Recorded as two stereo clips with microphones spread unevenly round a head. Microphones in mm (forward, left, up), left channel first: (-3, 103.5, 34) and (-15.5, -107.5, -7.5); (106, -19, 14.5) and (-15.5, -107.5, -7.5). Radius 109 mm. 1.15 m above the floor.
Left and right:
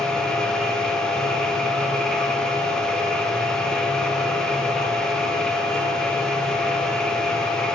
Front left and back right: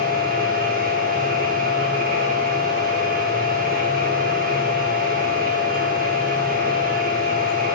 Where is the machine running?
175° left, 0.7 m.